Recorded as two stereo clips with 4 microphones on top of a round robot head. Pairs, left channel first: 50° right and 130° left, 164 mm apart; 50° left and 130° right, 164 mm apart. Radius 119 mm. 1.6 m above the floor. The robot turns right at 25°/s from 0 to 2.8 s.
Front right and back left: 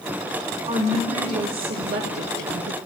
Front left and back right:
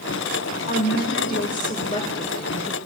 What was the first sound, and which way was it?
A woman speaking, 75° left.